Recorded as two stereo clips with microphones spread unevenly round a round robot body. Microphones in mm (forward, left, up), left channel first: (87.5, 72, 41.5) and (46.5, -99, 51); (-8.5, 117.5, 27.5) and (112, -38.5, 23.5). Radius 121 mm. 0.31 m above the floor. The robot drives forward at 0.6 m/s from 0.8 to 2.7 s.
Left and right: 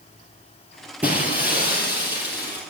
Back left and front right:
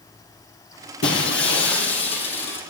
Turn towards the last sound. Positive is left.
turn(degrees=175)